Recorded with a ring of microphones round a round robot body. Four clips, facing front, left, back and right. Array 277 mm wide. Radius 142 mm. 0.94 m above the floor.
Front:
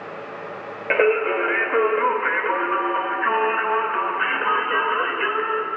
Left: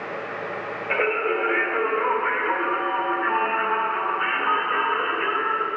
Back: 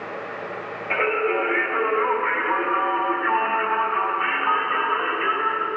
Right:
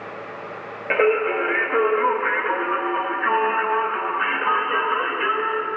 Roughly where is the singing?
Ahead right.